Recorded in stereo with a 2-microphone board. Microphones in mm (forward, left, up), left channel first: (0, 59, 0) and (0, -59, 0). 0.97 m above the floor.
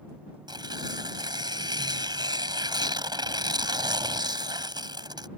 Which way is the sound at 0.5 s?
40° right (ahead or behind).